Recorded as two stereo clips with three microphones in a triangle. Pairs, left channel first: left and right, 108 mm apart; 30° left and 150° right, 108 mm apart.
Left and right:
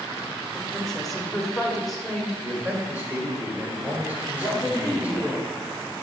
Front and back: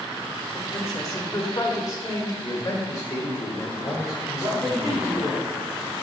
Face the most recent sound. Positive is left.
turn(degrees=-175)